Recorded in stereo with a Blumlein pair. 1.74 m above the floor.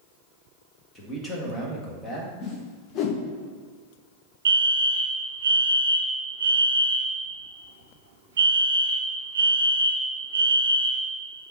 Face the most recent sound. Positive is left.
turn(degrees=-60)